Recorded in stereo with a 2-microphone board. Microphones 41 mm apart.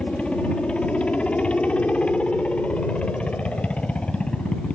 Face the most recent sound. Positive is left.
turn(degrees=25)  # may be behind; listen again after turning